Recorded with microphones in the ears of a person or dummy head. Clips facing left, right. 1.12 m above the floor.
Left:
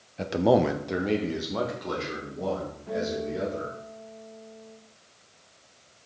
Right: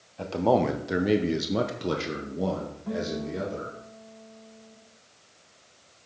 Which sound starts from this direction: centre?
A man speaking, at 0.2 s.